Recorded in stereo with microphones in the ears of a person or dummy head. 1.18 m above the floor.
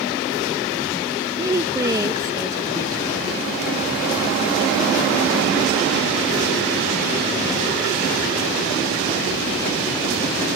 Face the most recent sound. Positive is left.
turn(degrees=-15)  # may be behind; listen again after turning